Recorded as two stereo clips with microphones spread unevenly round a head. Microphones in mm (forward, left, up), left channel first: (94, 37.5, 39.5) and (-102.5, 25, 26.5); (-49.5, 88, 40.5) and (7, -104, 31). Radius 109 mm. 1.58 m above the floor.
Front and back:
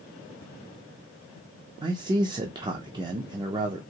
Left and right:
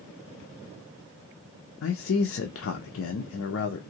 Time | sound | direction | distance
1.8 | a man speaking | 115° left | 0.7 m